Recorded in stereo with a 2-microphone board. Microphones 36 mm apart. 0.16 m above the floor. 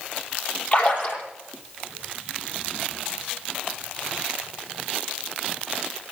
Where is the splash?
40° left (ahead or behind), 5 m.